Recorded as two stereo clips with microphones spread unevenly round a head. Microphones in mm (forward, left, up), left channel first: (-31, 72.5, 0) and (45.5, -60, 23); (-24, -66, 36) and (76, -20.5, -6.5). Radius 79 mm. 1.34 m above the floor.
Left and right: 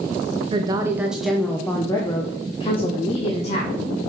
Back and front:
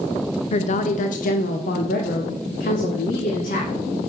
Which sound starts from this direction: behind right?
A woman speaking, at 0.5 s.